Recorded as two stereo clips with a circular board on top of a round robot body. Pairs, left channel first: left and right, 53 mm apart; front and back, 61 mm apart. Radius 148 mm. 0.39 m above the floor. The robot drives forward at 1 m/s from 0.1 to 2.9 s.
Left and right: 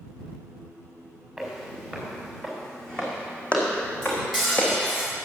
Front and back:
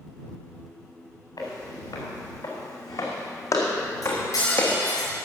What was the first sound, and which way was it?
Footsteps, straight ahead.